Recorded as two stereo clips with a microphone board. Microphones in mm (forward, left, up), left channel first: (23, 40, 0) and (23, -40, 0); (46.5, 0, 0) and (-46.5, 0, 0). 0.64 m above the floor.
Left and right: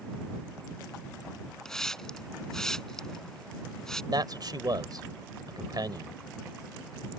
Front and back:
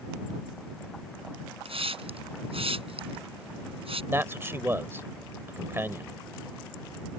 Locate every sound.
1.6 s a hiss: 175° left
4.1 s a man speaking: 115° right